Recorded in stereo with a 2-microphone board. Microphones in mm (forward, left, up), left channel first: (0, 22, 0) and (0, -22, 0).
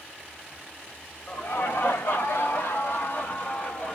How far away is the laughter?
About 2.0 m.